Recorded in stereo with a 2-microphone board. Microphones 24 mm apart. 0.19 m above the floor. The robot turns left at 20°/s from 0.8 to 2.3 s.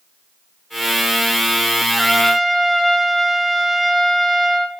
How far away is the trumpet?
About 1.3 m.